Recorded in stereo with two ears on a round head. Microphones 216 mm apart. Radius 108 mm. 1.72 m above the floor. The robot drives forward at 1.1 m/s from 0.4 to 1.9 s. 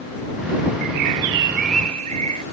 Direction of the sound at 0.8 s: 65° right (ahead or behind).